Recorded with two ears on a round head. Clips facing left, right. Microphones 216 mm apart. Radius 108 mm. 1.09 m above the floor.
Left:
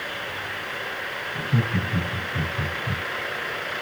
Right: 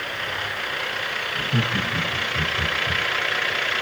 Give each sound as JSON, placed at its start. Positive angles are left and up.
{"t": 1.4, "sound": "laughter", "side_deg": 20, "distance_m": 6.5}